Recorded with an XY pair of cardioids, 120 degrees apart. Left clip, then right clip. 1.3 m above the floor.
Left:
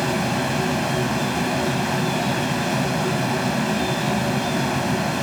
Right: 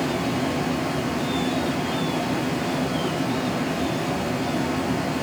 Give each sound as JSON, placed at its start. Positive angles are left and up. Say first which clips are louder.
{"t": 0.0, "sound": "a fan", "louder": "left 2 dB", "azimuth_deg": 70, "distance_m": 0.7}